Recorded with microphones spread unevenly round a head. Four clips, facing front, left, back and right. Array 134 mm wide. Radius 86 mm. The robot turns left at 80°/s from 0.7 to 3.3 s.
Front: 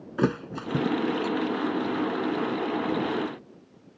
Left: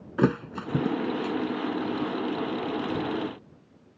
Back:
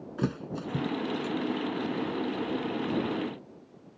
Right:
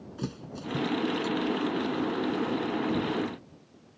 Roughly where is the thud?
Ahead left.